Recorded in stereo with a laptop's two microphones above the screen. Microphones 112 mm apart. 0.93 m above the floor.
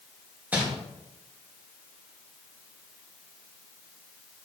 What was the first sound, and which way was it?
Crumpling, 15° right (ahead or behind).